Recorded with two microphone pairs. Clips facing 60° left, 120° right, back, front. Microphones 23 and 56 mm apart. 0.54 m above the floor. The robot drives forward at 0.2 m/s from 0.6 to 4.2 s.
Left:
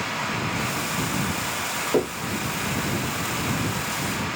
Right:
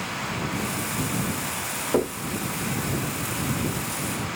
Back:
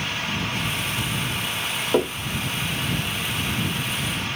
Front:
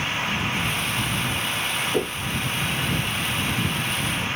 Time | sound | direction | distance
1.9 | knocking | 155° left | 1.1 m